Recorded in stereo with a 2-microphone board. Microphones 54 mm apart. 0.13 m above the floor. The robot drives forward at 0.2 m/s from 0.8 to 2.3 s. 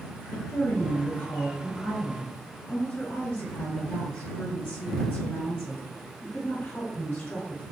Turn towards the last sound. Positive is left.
turn(degrees=35)  # may be behind; listen again after turning